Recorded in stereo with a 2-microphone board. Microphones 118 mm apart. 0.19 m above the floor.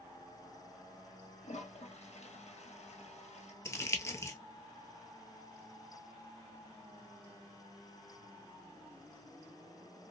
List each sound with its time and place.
1.4 s a toilet flushing: 70° left (ahead or behind), 1.0 m
3.6 s crumpling: 25° left (ahead or behind), 0.7 m